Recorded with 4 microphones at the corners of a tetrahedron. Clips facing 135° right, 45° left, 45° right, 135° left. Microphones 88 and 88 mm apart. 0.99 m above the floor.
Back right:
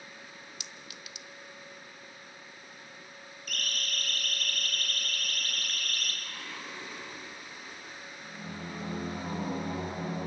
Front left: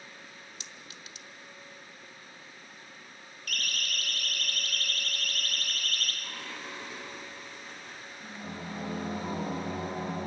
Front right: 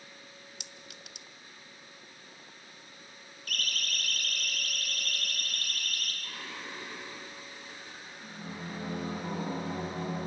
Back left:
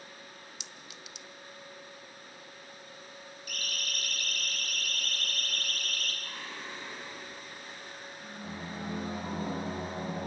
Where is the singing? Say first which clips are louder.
Front left 1 dB, back left 1 dB; 75° left, 5 m.